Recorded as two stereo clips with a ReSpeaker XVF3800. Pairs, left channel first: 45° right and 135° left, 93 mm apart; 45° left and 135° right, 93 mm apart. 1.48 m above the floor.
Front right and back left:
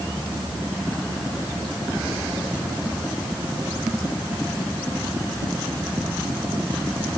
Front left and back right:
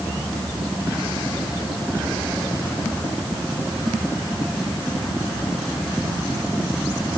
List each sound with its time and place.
Only background noise.